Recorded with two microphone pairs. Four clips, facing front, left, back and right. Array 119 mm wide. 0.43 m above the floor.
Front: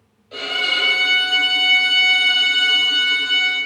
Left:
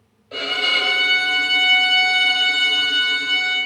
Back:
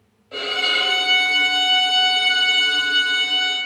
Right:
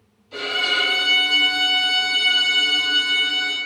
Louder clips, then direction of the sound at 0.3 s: Even, even; 85° left.